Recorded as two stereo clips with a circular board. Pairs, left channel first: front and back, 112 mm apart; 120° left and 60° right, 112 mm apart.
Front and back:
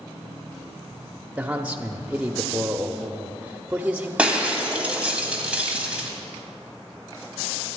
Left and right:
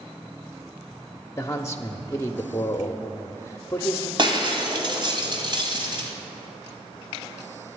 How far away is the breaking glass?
About 2.0 m.